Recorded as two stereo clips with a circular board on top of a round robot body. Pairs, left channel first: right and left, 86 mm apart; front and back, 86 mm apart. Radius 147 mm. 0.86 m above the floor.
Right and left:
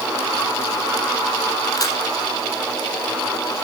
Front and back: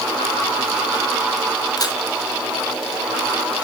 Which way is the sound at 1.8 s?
45° right.